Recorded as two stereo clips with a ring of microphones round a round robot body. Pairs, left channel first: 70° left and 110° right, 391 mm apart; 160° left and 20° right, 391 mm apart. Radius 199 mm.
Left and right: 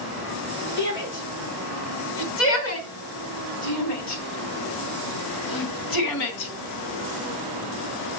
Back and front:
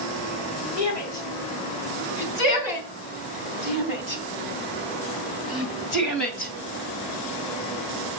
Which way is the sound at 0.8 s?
130° left.